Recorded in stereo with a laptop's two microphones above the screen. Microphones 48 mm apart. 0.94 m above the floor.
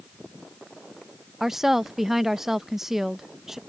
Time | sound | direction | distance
1.4 | a woman speaking | 10° right (ahead or behind) | ?